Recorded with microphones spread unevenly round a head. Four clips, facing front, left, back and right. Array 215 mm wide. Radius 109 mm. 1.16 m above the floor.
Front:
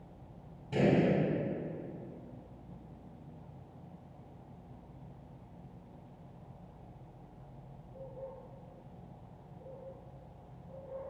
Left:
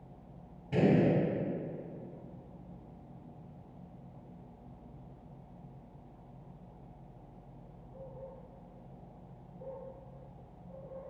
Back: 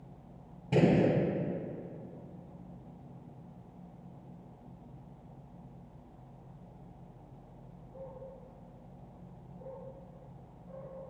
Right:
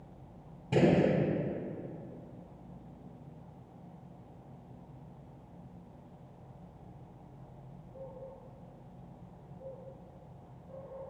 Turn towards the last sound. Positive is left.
turn(degrees=-140)